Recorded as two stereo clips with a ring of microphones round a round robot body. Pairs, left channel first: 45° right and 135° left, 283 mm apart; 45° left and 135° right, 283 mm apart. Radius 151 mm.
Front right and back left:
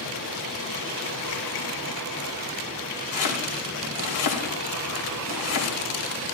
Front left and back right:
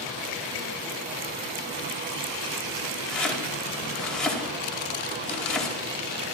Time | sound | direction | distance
3.1 | chopping | 45° right | 5 m